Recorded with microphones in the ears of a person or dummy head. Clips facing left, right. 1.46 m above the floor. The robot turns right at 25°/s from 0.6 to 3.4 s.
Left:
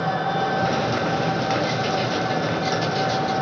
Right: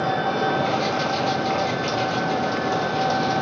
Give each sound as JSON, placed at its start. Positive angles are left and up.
{"t": 0.0, "sound": "an engine running", "azimuth_deg": -140, "distance_m": 1.6}